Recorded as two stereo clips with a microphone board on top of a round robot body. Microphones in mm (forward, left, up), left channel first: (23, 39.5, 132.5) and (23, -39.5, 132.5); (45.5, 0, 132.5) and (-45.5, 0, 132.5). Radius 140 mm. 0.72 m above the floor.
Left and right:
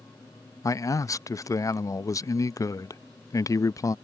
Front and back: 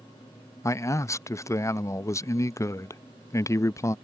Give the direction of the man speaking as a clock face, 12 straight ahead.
10 o'clock.